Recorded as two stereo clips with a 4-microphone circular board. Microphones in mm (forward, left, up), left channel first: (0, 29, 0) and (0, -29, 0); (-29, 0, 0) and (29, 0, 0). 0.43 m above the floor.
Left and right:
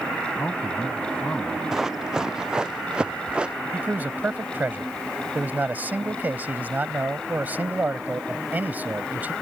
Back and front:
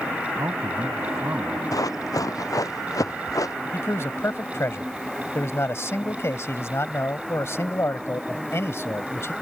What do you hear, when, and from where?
0.4 s a man speaking: 40° left
1.7 s running footsteps: 170° right; by 3.5 s 160° right
3.7 s a man speaking: 145° right